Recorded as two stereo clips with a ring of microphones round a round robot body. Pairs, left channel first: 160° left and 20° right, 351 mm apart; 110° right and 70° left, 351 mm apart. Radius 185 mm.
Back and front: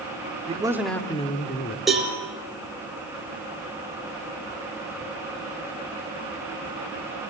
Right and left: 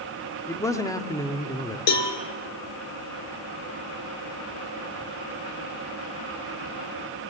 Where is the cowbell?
110° right, 2.5 m.